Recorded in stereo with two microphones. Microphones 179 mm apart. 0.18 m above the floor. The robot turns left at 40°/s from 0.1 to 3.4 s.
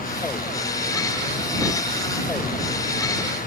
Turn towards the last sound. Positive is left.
No sound to turn to.